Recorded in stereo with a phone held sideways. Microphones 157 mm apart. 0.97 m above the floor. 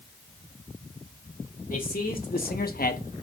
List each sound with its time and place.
1.7 s a man speaking: 65° left (ahead or behind), 2 m; by 3.2 s 45° left (ahead or behind), 1.0 m